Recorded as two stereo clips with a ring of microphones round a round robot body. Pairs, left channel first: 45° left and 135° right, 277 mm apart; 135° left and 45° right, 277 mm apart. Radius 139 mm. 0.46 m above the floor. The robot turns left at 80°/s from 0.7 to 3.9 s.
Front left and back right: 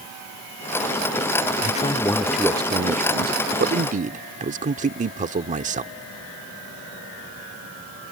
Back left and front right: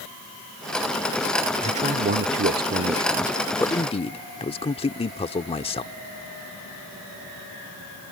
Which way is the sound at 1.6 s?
10° left.